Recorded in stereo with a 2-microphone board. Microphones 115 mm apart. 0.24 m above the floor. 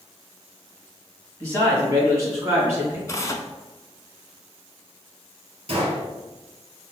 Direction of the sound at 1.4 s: 25° right (ahead or behind).